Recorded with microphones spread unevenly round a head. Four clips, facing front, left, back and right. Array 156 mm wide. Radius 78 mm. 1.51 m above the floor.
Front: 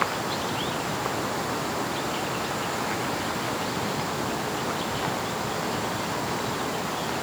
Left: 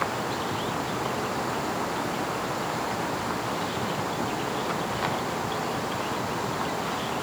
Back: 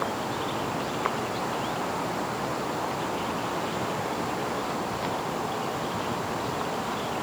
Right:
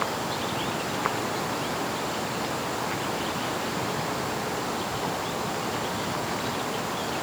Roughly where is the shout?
No shout in this recording.